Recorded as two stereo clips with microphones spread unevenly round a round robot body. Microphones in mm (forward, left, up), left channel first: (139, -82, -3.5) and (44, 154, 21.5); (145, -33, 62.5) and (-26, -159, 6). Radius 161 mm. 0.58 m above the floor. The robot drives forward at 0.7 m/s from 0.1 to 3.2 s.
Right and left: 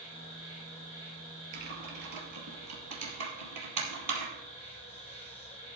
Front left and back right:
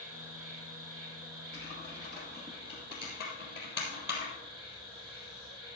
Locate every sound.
0.0 s an insect: 135° right, 8 m; by 5.8 s 145° right, 9.5 m
1.5 s typing on a keyboard: 115° left, 3 m; by 5.8 s 130° left, 3.5 m